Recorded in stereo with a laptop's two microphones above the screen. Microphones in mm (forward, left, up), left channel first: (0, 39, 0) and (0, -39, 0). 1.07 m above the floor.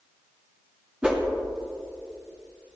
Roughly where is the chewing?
No chewing in this recording.